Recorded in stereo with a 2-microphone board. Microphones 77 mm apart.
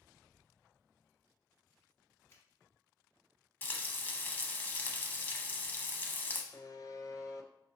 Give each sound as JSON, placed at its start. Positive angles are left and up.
{"t": 2.3, "sound": "a finger snap", "side_deg": 30, "distance_m": 1.2}
{"t": 3.6, "sound": "frying", "side_deg": 25, "distance_m": 0.6}
{"t": 6.5, "sound": "a buzzer", "side_deg": 55, "distance_m": 0.5}